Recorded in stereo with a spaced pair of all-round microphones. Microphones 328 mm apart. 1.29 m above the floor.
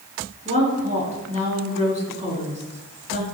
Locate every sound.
0.5 s a woman speaking: 20° right (ahead or behind), 5.5 m